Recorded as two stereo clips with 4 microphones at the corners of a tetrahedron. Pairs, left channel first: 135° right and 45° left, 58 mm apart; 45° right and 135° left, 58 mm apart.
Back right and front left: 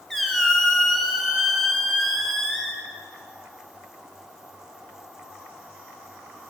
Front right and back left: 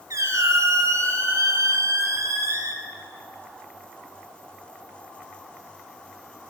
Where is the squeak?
140° left, 1.6 m.